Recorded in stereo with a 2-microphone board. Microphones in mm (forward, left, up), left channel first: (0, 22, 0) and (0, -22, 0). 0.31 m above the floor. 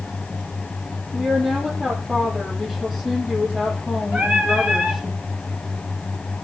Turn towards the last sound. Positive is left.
turn(degrees=-25)  # may be behind; listen again after turning